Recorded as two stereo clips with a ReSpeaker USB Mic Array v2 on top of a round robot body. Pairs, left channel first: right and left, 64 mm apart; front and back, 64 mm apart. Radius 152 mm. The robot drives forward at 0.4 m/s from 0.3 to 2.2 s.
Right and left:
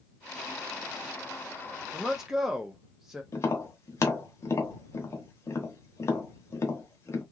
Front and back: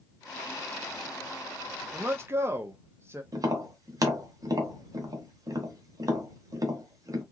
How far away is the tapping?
About 0.8 m.